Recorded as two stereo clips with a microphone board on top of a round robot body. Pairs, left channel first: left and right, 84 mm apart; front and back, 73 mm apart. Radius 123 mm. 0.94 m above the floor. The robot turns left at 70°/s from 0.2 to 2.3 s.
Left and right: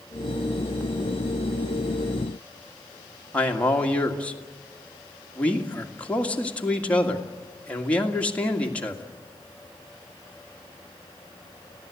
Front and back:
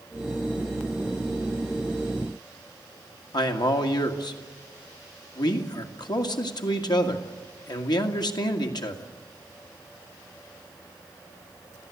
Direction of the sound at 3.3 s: 15° left.